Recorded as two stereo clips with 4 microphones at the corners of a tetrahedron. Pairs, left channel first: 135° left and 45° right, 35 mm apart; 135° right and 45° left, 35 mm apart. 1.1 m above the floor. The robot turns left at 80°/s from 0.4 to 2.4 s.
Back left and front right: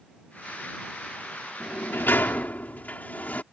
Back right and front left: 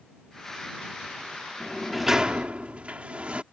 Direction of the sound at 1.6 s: 160° left.